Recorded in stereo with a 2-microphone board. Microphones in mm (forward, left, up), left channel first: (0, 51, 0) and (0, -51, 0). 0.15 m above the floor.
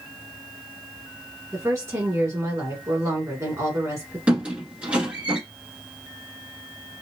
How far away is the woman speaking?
About 1.2 m.